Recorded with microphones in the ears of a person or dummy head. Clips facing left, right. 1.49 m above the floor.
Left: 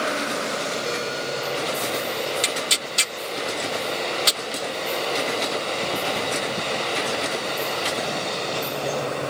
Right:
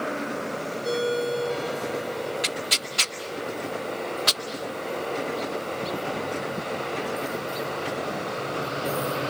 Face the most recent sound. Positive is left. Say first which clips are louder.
# left 3 dB
turn(degrees=45)  # may be behind; listen again after turning